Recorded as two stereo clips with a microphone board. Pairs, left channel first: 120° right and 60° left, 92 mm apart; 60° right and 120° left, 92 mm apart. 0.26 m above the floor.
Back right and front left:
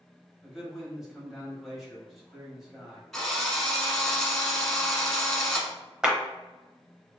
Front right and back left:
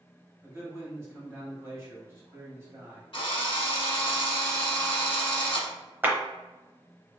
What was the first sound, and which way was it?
A man speaking, 145° left.